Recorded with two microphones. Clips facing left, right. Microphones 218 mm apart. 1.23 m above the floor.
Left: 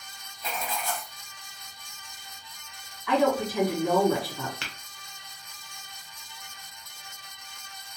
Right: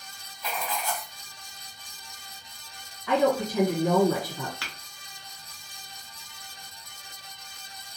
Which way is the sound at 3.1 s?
35° right (ahead or behind).